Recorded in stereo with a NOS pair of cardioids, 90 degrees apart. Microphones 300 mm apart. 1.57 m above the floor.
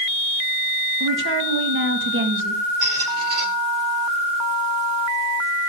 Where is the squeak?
50° right, 2 m.